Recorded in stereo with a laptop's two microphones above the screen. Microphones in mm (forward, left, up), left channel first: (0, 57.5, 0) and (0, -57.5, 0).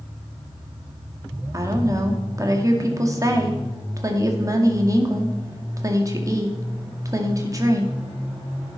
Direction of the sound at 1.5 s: 30° right (ahead or behind).